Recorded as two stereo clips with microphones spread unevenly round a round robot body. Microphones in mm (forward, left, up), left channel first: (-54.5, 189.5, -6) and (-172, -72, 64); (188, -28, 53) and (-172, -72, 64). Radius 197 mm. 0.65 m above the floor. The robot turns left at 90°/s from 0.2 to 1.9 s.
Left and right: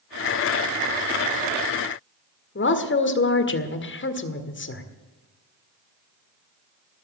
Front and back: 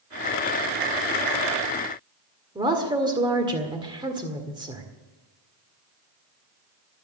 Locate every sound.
2.5 s a woman speaking: 110° left, 1.8 m